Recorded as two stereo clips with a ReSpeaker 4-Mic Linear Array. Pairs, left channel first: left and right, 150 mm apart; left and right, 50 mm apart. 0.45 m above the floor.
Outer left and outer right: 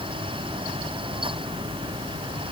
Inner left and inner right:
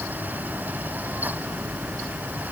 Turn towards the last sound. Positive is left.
No sound to turn to.